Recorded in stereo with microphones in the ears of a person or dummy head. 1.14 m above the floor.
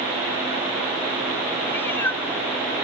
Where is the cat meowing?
10° left (ahead or behind).